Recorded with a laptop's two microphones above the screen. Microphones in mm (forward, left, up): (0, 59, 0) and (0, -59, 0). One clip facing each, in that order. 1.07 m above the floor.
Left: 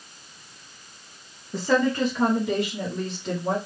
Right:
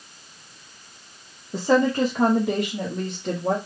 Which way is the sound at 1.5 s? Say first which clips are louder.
Right 3 dB; 20° right (ahead or behind).